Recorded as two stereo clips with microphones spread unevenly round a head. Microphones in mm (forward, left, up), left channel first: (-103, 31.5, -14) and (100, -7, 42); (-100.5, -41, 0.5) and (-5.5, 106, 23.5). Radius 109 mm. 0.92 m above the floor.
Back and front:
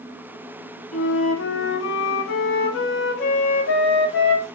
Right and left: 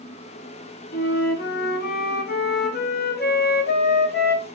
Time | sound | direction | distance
0.9 | a flute | 155° right | 0.9 m